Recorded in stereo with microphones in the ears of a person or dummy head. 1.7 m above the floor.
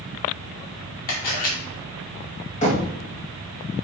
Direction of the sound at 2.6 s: 35° left (ahead or behind).